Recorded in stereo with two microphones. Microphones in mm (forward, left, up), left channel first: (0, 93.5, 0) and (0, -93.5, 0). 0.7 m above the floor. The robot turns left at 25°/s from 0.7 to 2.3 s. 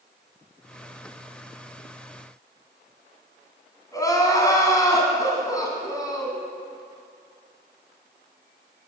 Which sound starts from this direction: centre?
Crying, at 3.9 s.